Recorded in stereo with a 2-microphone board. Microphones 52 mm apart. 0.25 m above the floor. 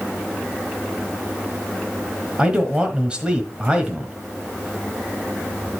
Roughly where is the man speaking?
Centre.